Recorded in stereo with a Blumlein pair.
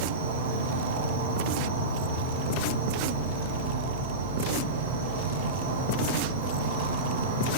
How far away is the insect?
About 1.3 m.